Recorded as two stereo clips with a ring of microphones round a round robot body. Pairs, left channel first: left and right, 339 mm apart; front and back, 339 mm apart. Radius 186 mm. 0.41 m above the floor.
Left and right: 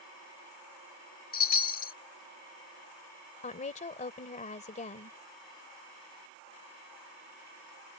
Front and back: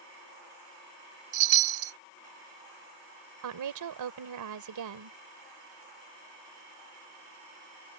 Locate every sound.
1.3 s a chime: 150° left
3.4 s a woman speaking: 160° left